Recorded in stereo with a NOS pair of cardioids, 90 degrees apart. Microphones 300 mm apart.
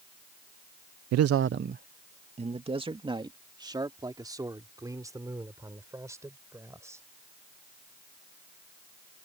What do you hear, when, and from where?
1.1 s a man speaking: 70° right; by 7.0 s 10° right